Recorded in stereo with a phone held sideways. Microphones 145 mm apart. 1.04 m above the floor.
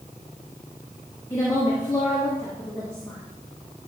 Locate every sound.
1.3 s a woman speaking: 25° left (ahead or behind), 1.6 m